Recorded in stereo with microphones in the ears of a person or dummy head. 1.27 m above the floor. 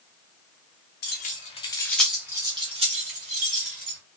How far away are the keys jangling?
About 0.6 m.